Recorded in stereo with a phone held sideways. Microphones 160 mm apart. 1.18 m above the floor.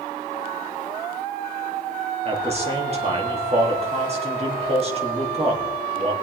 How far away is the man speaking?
About 3 m.